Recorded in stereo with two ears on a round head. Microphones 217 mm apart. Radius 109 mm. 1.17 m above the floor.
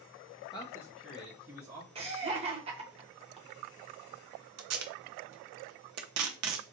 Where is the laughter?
25° right (ahead or behind), 0.9 m.